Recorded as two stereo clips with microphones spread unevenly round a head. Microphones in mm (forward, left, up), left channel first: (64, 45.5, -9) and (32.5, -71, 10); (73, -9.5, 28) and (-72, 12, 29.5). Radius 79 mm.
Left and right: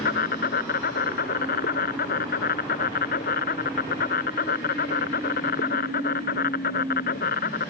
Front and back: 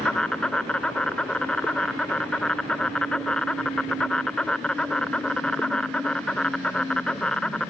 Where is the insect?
75° left.